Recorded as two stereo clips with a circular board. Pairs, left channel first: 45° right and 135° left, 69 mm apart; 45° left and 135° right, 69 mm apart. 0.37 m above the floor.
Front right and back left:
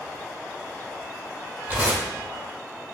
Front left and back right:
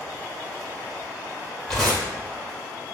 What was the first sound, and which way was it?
Tearing paper, 120° left.